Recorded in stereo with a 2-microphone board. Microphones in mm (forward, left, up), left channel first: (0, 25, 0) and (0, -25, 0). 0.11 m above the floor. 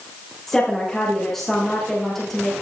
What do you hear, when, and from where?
0.5 s a woman speaking: 5° left (ahead or behind), 6 m